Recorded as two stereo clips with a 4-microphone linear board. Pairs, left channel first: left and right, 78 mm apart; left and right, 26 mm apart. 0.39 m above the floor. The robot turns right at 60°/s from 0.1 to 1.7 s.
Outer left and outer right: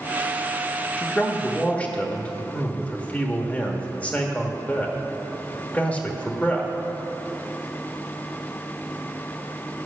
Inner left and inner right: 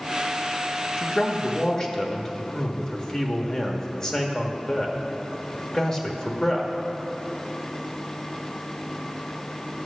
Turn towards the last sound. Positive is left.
turn(degrees=20)  # may be behind; listen again after turning